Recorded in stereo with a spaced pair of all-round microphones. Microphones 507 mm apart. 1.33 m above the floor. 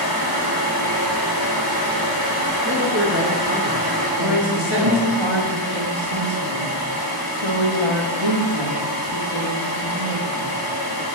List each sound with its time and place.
0.0 s a fan: 45° left (ahead or behind), 1.3 m
2.6 s a man speaking: 20° right (ahead or behind), 0.8 m
4.2 s a woman speaking: 60° right (ahead or behind), 1.7 m